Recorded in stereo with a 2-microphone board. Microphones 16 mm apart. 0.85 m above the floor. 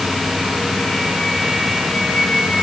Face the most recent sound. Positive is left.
No sound to turn to.